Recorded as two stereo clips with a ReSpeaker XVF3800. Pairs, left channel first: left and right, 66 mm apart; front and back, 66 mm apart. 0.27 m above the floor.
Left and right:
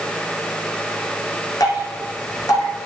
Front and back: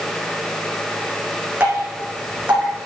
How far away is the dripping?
About 3 m.